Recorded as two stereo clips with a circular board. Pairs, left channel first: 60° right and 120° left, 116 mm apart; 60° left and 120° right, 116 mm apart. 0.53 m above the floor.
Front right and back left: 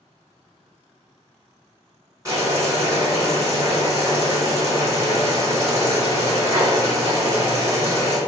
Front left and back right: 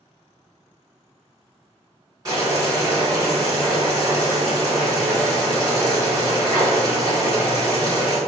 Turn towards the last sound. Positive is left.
turn(degrees=-175)